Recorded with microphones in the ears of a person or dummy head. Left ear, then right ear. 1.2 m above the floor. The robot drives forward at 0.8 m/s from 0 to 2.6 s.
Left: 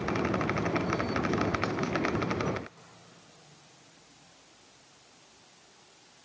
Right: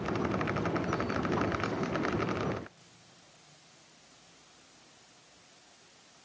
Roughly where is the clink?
No clink in this recording.